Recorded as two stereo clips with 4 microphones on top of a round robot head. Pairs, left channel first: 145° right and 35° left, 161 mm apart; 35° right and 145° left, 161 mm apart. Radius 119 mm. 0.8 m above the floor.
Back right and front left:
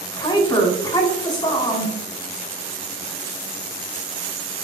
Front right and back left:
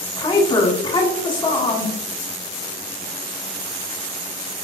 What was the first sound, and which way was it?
A woman speaking, 90° right.